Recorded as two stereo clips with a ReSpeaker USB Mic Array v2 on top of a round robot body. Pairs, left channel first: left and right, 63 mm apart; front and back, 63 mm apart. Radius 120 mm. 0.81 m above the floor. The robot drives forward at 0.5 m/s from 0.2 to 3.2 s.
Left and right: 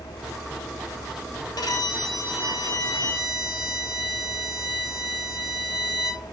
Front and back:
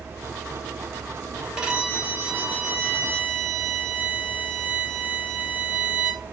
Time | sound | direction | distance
1.6 | a violin | 105° left | 3 m